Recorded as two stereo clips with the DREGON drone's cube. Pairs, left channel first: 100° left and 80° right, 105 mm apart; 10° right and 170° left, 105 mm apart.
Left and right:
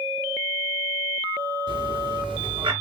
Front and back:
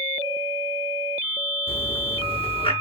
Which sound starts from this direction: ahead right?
A bird, at 1.7 s.